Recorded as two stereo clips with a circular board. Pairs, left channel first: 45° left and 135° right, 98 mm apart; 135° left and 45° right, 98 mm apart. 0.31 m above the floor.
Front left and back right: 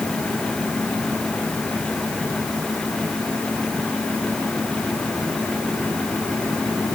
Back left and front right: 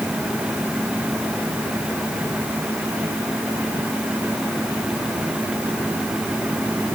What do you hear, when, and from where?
Only background noise.